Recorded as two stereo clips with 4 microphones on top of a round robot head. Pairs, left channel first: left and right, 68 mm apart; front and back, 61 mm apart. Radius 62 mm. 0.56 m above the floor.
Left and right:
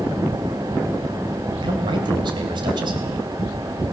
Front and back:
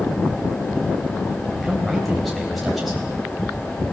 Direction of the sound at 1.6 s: 90° right.